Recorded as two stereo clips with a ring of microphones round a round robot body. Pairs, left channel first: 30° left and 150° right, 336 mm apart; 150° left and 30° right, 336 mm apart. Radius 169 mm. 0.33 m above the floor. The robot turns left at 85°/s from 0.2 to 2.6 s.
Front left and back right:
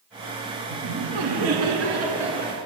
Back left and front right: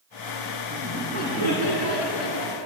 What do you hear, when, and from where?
0.7 s laughter: 105° right, 5 m; by 2.6 s 100° left, 5 m